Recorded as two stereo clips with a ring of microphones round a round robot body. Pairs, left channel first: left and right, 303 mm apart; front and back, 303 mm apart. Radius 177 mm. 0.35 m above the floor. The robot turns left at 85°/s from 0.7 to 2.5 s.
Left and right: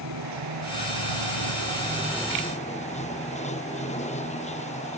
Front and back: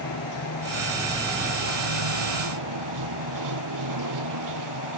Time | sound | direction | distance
0.0 | running water | 50° right | ?